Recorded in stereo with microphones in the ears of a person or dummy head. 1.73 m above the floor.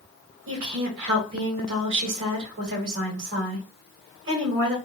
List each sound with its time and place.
0.5 s a woman speaking: 65° right (ahead or behind), 1.7 m